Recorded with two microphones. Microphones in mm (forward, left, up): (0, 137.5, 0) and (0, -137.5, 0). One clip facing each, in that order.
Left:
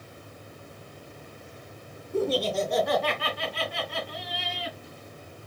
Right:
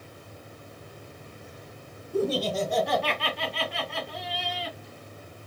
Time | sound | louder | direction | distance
2.1 | laughter | even | 10° right (ahead or behind) | 2.5 m